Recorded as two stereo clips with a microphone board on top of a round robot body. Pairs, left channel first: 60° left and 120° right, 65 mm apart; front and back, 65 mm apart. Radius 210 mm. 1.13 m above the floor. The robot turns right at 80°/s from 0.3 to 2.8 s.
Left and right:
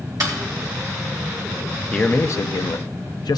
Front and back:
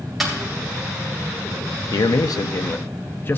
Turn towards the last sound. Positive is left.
turn(degrees=55)